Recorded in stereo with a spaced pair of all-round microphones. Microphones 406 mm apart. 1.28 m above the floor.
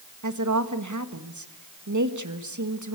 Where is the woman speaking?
45° right (ahead or behind), 1.8 m.